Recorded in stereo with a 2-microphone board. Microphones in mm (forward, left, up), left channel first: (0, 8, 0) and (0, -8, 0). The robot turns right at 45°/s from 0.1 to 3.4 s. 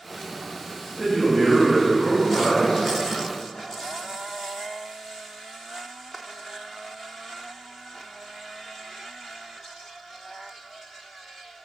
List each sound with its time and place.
1.0 s a man speaking: 35° right, 1.0 m; by 2.8 s 50° left, 1.0 m